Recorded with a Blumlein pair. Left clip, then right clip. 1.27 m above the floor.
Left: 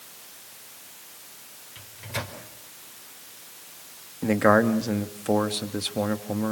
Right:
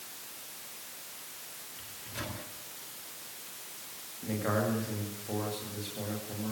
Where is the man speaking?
55° left, 2.5 m.